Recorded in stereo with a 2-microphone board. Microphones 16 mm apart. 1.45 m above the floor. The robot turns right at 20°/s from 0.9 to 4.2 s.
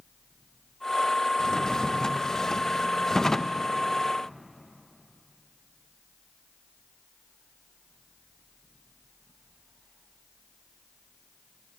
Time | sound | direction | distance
1.4 | a drawer | 95° left | 0.7 m